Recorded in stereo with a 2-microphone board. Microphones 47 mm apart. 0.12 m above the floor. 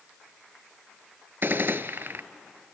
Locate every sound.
1.4 s a gunshot: 50° right (ahead or behind), 0.6 m